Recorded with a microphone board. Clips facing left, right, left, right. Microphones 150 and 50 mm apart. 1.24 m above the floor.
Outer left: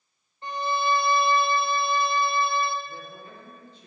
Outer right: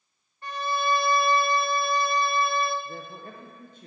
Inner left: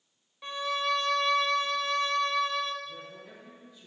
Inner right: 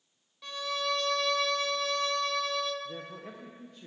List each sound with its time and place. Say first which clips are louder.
0.4 s a violin: outer left 1 dB, inner left 3 dB; 20° left (ahead or behind), 0.6 m
2.9 s a man speaking: outer right 2 dB, inner right 2 dB; 50° right (ahead or behind), 1.0 m